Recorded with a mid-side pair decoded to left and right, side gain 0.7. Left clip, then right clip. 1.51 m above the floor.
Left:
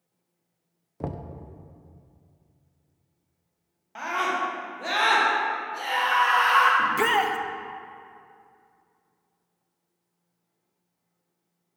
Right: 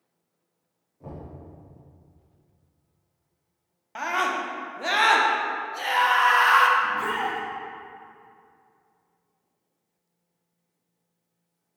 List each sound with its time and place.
1.0 s knocking: 65° left, 0.6 m
4.0 s a scream: 25° right, 1.4 m
6.8 s a shout: 65° left, 0.7 m